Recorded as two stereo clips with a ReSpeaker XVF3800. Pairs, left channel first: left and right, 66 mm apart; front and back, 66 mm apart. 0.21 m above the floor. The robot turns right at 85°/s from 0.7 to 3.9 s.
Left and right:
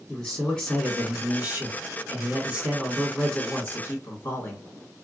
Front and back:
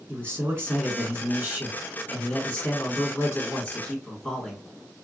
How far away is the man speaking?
About 1.9 m.